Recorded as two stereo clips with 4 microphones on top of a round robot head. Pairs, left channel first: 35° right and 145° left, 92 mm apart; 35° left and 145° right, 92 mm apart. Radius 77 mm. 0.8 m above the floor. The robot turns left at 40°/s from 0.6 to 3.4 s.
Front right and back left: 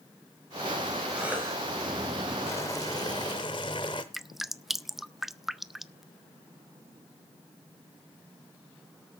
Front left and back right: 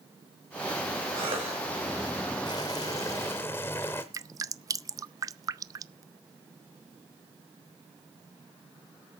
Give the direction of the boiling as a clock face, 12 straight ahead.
11 o'clock.